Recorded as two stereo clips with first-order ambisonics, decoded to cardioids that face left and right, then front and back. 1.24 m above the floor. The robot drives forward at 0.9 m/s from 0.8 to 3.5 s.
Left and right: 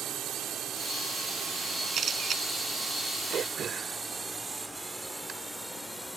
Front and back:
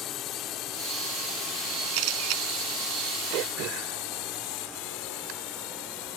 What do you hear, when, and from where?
0.0 s a drone: 45° right; by 6.2 s 5° right
1.9 s a camera shutter: 150° right
3.3 s throat clearing: 150° right